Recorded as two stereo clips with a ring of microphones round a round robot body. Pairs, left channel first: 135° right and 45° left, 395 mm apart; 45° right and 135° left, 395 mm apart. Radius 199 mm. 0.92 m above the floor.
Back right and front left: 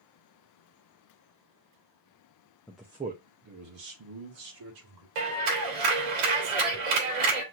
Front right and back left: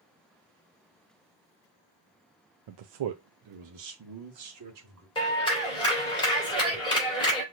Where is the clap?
35° left, 3 m.